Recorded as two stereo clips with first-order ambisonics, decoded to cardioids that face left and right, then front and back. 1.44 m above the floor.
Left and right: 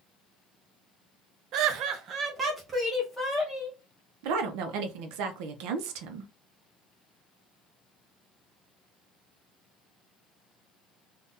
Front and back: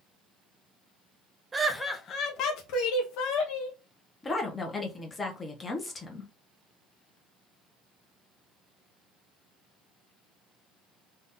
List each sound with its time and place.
1.5 s laughter: 110° right, 0.5 m; by 3.8 s 5° right, 1.3 m
4.2 s a woman speaking: 75° right, 0.7 m